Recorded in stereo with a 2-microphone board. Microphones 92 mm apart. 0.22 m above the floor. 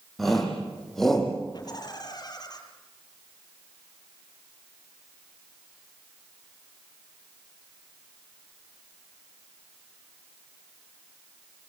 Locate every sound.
0.2 s a shout: centre (ahead or behind), 10 m; by 1.4 s 5° left (ahead or behind), 8.5 m
1.5 s laughter: 45° left (ahead or behind), 5.5 m